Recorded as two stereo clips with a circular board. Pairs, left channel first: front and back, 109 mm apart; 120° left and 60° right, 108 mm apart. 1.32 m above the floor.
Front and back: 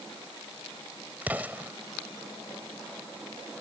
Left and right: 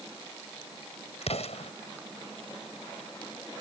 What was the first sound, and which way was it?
An explosion, 105° left.